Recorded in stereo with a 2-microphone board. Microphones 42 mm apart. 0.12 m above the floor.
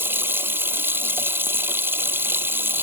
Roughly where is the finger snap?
No finger snap in this recording.